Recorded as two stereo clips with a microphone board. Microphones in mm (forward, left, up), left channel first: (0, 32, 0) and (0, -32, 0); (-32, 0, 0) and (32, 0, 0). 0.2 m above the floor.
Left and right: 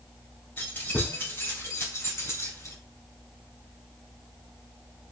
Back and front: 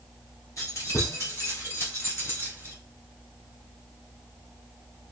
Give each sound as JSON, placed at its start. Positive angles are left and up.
{"t": 0.6, "sound": "keys jangling", "azimuth_deg": 150, "distance_m": 2.5}